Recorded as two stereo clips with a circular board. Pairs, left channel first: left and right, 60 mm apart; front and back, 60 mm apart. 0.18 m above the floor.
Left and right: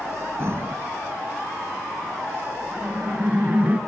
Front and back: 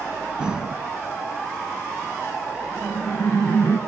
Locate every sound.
0.4 s breathing: 110° right, 0.6 m
2.7 s laughter: 30° right, 2 m